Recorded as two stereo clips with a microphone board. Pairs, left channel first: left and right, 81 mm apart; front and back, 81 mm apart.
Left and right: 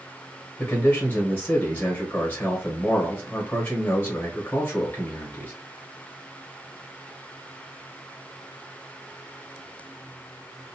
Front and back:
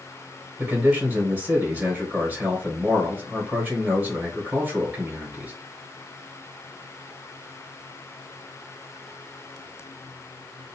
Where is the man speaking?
135° left, 1.0 m.